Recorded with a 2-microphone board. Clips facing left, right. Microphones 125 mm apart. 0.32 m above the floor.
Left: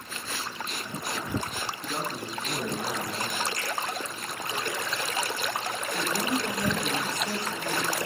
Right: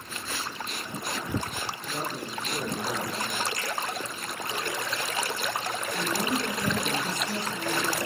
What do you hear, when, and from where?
1.8 s a man speaking: 45° left (ahead or behind), 4 m; by 3.4 s 25° left (ahead or behind), 2 m
3.5 s a finger snap: 40° left (ahead or behind), 8 m
5.9 s a woman speaking: 25° left (ahead or behind), 9.5 m